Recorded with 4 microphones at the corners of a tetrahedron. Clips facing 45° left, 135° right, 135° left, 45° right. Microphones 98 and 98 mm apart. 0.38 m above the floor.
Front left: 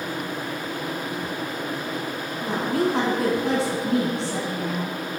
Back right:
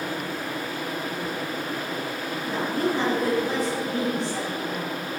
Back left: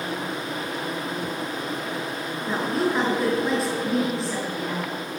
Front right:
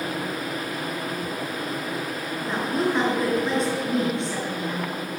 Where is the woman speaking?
45° left, 4 m.